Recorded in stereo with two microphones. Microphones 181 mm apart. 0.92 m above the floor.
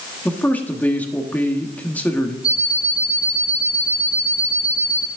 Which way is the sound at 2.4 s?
5° right (ahead or behind).